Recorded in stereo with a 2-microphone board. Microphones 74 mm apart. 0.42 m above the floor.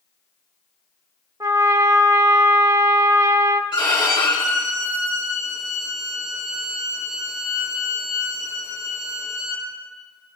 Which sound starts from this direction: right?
A trumpet, at 1.4 s.